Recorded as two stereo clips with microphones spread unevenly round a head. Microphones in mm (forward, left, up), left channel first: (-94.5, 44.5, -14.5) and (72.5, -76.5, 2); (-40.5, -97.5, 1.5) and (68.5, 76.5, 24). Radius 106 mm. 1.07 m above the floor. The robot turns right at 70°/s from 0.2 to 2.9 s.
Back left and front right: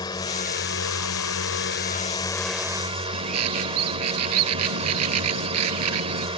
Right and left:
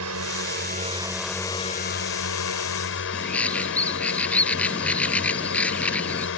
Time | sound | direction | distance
0.0 | a drone | 75° left | ?
3.1 | a bird | 40° right | ?